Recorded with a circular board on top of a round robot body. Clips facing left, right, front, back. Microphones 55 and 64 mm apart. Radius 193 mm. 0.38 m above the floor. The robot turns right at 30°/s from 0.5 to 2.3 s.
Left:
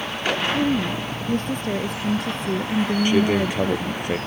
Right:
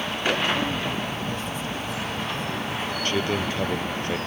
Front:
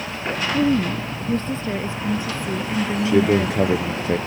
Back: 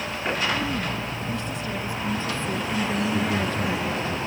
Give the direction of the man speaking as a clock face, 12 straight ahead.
11 o'clock.